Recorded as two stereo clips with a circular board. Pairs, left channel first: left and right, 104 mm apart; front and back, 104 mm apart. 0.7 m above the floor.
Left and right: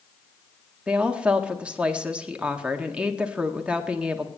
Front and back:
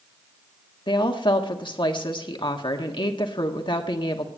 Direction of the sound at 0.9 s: 15° right.